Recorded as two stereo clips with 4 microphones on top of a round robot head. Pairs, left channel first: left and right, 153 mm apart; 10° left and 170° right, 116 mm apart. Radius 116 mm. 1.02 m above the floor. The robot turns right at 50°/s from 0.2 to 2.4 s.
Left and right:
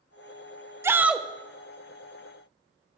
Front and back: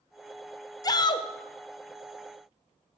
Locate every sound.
0.8 s a shout: 25° right, 0.5 m; by 1.3 s straight ahead, 0.5 m